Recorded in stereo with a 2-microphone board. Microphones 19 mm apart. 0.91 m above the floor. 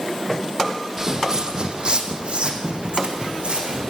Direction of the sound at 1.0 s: 35° right (ahead or behind).